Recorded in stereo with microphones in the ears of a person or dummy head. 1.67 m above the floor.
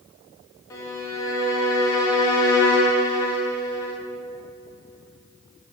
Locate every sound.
0.7 s a violin: 15° left (ahead or behind), 1.1 m